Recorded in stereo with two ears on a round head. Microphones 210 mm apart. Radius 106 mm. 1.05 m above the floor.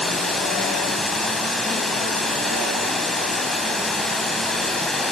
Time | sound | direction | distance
0.0 | running water | centre (ahead or behind) | 2.5 m